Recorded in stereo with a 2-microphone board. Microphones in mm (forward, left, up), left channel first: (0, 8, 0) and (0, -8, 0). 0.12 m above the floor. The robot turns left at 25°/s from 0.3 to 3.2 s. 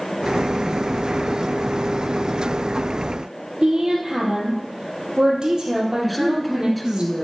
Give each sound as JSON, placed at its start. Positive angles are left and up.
{"t": 3.6, "sound": "a woman speaking", "side_deg": -45, "distance_m": 3.0}
{"t": 6.0, "sound": "a man speaking", "side_deg": 5, "distance_m": 1.2}